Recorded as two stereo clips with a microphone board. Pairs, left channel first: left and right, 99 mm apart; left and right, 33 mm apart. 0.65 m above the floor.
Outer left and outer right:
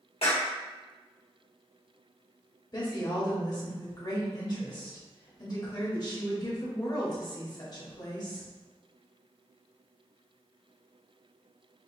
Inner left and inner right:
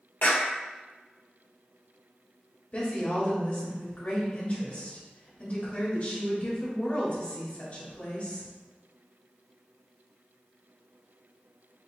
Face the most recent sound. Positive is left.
turn(degrees=45)  # may be behind; listen again after turning